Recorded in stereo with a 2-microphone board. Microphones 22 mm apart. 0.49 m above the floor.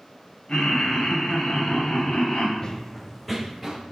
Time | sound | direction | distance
0.5 | laughter | 45° left (ahead or behind) | 3 m
2.6 | running footsteps | 40° left (ahead or behind) | 0.8 m